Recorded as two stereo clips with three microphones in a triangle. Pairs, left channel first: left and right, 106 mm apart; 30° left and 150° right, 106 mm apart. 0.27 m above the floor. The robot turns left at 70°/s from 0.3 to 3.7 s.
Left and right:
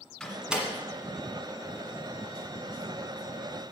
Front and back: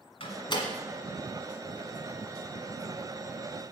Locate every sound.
0.2 s a door slam: 5° left, 1.7 m; by 0.7 s 20° right, 1.7 m